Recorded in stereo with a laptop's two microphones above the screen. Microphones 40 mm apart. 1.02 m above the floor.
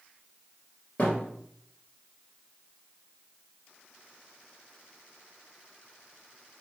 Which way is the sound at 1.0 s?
30° left (ahead or behind).